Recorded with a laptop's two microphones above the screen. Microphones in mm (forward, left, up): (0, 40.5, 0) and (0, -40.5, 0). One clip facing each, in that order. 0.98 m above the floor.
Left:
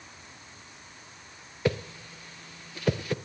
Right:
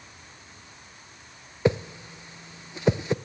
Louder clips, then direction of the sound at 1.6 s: Right 4 dB; 20° right (ahead or behind).